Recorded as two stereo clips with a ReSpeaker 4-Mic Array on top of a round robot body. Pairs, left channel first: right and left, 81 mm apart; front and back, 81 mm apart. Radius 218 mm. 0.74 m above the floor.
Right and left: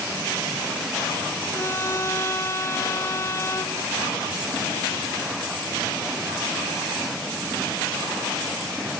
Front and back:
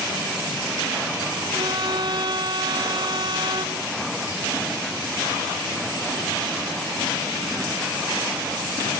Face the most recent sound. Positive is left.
turn(degrees=-145)